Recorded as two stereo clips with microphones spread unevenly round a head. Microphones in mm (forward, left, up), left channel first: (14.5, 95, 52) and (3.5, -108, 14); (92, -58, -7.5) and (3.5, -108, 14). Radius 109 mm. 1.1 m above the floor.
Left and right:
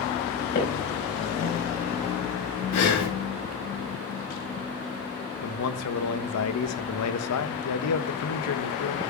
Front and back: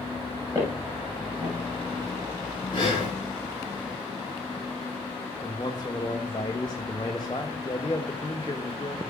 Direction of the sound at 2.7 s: 90° left.